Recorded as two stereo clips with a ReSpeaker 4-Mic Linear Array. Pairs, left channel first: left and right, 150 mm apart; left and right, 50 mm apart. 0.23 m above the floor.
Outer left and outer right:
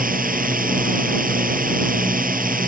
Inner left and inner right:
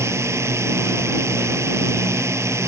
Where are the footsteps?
I don't hear footsteps.